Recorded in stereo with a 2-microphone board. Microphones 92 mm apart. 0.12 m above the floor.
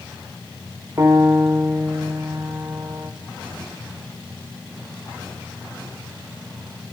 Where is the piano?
35° right (ahead or behind), 2.5 m.